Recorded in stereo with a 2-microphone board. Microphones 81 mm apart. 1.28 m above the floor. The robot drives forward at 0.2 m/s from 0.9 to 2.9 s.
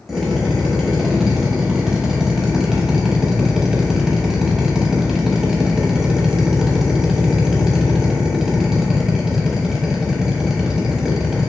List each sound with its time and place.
0.1 s a drill: 5° right (ahead or behind), 0.8 m